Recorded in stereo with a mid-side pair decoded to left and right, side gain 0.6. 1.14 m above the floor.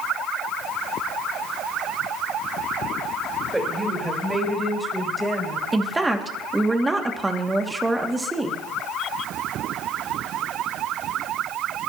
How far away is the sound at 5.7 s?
About 2.5 m.